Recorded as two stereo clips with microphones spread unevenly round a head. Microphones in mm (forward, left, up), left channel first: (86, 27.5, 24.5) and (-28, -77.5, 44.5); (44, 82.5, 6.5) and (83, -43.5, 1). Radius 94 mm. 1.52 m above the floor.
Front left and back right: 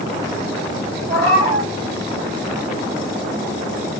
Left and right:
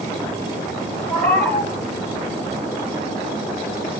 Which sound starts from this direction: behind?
A cat meowing, at 1.1 s.